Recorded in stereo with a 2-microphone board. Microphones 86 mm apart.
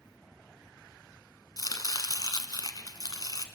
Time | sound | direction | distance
1.6 | chopping | 55° left (ahead or behind) | 1.4 m